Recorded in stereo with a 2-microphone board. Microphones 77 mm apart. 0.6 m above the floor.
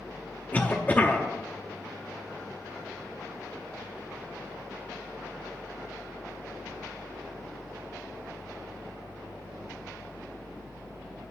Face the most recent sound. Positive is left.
turn(degrees=25)  # may be behind; listen again after turning